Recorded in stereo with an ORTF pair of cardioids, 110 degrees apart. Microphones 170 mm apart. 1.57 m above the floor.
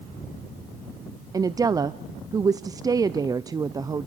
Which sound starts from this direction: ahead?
A woman speaking, at 1.3 s.